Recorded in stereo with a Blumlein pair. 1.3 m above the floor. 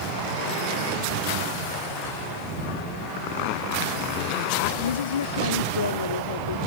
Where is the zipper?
45° left.